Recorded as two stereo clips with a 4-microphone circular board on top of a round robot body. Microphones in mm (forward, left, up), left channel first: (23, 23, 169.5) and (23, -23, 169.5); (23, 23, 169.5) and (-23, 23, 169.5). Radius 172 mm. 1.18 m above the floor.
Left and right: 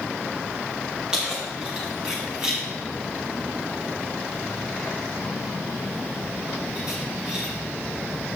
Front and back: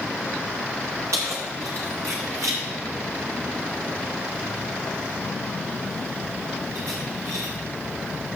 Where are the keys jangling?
170° right, 0.9 m.